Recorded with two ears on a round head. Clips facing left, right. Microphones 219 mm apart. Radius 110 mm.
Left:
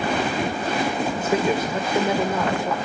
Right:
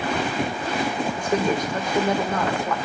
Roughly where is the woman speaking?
Centre.